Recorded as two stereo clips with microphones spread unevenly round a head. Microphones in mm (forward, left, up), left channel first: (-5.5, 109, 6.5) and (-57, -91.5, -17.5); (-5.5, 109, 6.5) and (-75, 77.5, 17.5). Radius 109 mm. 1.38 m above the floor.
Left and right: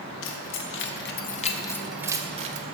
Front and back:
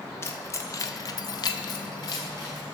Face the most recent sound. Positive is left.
turn(degrees=-50)